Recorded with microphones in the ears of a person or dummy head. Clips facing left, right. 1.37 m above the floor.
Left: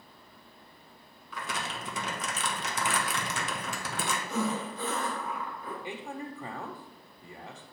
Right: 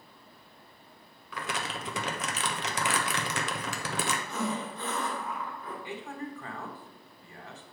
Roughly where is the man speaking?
Centre.